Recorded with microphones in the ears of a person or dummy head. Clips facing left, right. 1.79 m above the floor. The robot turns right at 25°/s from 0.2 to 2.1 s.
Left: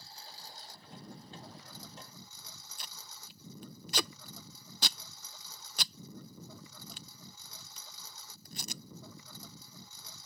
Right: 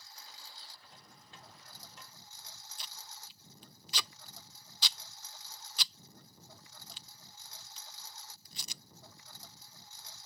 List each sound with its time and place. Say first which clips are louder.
0.0 s a lawn mower: left 4 dB; 30° left; by 10.3 s 80° left
2.8 s tape being pulled: even; 45° left (ahead or behind)